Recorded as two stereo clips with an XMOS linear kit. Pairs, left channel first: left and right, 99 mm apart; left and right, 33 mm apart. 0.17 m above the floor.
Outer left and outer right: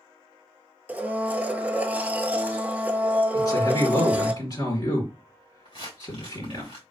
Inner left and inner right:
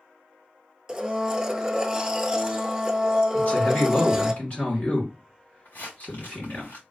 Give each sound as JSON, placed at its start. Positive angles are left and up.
{"t": 0.9, "sound": "a blender", "side_deg": -15, "distance_m": 0.5}
{"t": 3.3, "sound": "a man speaking", "side_deg": 45, "distance_m": 1.9}
{"t": 5.7, "sound": "crumpling", "side_deg": 80, "distance_m": 3.0}